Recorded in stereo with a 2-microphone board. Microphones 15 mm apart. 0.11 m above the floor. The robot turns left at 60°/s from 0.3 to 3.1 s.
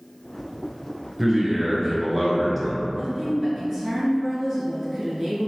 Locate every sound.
1.2 s a man speaking: 25° right (ahead or behind), 1.1 m; by 2.9 s 5° right (ahead or behind), 1.1 m
3.0 s a woman speaking: 30° right (ahead or behind), 1.2 m